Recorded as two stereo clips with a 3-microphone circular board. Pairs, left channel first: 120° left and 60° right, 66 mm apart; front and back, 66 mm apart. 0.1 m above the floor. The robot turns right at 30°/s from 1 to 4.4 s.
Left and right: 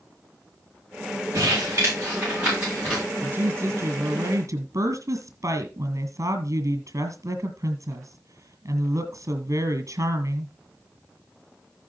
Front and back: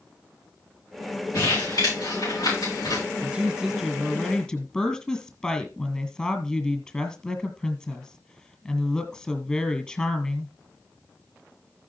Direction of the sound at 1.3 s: 25° right.